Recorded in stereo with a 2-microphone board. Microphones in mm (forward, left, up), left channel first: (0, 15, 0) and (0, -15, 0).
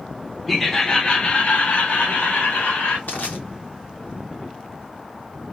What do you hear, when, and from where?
0.5 s laughter: 5° left (ahead or behind), 0.9 m; by 3.0 s 75° left (ahead or behind), 2.5 m
3.1 s crushing: 65° left (ahead or behind), 1.9 m